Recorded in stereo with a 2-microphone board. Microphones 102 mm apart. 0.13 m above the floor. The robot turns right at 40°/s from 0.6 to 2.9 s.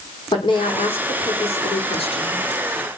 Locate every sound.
0.3 s a woman speaking: 50° left, 8 m; by 2.4 s 125° left, 8 m